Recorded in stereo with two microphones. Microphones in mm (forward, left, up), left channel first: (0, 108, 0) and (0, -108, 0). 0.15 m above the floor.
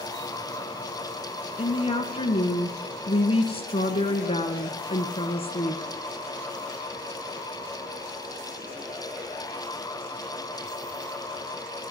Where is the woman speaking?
25° left (ahead or behind), 1.5 m.